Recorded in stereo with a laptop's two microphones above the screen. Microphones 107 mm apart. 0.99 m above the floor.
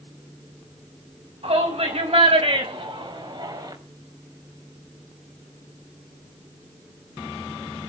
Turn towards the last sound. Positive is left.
turn(degrees=-40)  # may be behind; listen again after turning